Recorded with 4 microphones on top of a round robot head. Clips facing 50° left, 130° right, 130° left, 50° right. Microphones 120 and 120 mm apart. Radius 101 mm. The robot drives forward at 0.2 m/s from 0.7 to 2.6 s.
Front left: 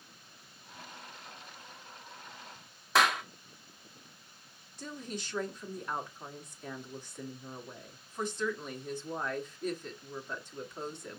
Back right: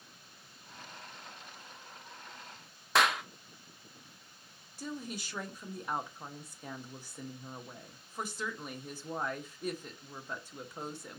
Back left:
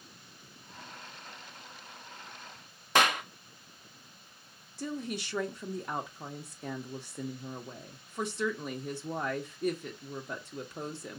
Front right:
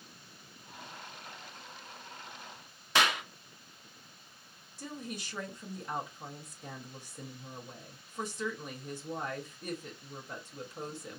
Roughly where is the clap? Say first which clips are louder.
Front left 1 dB, back left 3 dB; behind left.